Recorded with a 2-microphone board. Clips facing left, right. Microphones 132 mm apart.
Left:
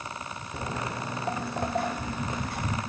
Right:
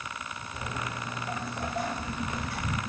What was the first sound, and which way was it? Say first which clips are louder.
Footsteps: left 3 dB; 65° left (ahead or behind).